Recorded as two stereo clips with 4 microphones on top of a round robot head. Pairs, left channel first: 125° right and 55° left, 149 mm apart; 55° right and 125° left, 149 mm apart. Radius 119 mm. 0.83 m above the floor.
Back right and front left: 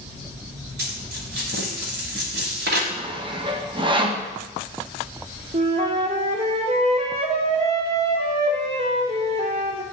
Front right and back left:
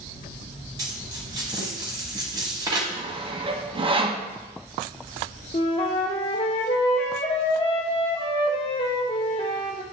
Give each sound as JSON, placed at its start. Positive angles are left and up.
{"t": 0.8, "sound": "a dropped coin", "azimuth_deg": 65, "distance_m": 0.9}
{"t": 2.9, "sound": "sawing", "azimuth_deg": 90, "distance_m": 1.0}
{"t": 5.5, "sound": "a flute", "azimuth_deg": 0, "distance_m": 0.7}